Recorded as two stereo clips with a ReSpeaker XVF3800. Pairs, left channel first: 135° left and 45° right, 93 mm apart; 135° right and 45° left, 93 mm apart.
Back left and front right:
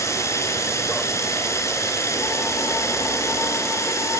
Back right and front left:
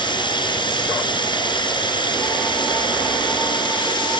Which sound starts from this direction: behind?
Running water, at 0.0 s.